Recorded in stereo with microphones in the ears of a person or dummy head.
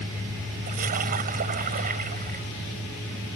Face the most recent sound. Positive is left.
turn(degrees=-45)  # may be behind; listen again after turning